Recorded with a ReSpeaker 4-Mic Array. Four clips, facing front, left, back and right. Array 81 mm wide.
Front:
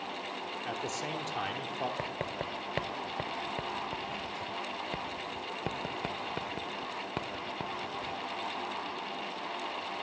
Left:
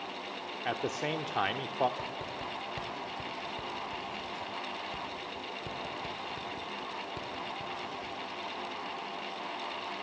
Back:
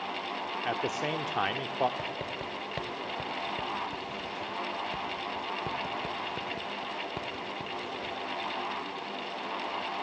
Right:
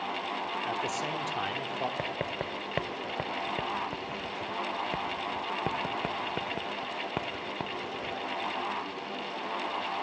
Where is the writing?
75° right, 0.9 m.